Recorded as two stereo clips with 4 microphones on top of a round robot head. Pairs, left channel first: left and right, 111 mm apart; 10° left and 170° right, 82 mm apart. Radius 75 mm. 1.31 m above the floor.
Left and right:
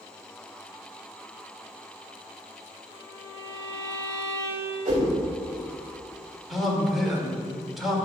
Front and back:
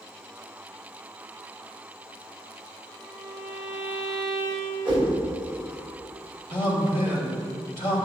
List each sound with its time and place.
2.9 s a violin: 65° right, 1.3 m
4.8 s a whoosh: 90° right, 2.5 m
6.5 s a man speaking: straight ahead, 2.5 m